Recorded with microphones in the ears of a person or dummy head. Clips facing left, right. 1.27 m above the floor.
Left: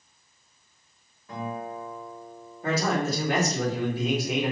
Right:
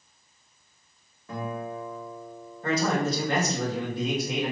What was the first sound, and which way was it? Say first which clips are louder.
A guitar: right 1 dB; 50° right (ahead or behind).